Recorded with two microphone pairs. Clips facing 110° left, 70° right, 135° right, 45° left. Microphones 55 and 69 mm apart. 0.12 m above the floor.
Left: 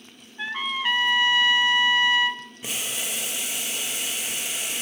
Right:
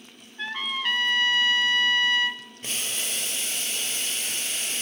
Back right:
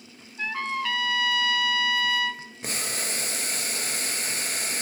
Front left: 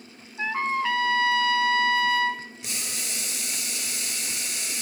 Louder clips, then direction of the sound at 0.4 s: Left 2 dB, front left 3 dB; 45° left.